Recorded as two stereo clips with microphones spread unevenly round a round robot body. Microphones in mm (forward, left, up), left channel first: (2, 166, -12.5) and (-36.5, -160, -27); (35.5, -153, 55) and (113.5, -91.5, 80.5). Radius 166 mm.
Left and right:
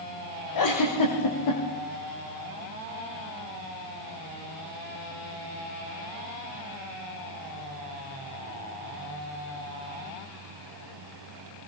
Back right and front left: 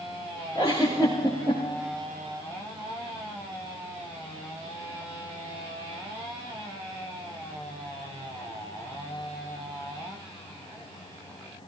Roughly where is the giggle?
Behind left.